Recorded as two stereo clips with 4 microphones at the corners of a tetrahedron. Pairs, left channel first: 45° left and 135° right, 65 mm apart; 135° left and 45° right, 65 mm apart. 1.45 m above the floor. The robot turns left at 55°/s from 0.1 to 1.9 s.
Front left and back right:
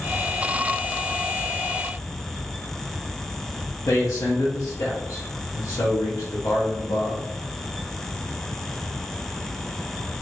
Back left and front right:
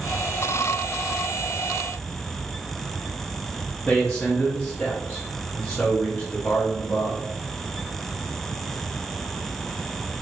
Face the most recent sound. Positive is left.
turn(degrees=55)